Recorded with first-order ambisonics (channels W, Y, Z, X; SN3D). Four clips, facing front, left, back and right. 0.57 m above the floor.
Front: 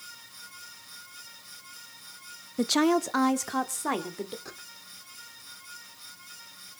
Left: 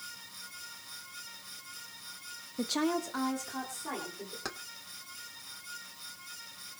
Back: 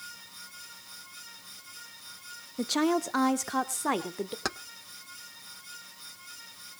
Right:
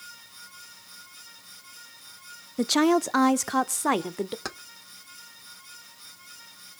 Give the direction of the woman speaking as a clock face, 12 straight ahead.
2 o'clock.